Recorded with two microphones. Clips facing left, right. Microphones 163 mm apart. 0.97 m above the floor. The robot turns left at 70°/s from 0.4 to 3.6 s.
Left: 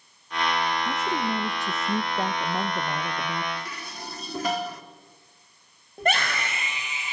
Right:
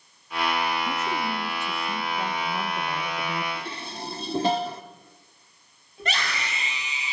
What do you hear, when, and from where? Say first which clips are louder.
0.8 s a woman speaking: left 1 dB; straight behind, 0.9 m; by 3.5 s 5° right, 0.9 m
3.5 s dishes clattering: right 2 dB; 25° right (ahead or behind), 1.4 m
6.0 s a scream: left 6 dB; 50° left (ahead or behind), 5 m